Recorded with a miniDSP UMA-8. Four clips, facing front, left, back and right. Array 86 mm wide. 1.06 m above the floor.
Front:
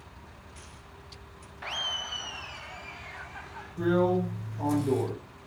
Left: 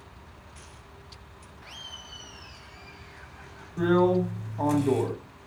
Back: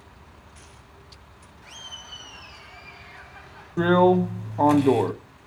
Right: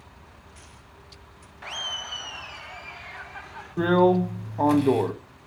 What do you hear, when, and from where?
1.6 s laughter: 35° right, 0.6 m; by 3.8 s 75° right, 2.5 m
3.8 s a drill: 160° right, 1.2 m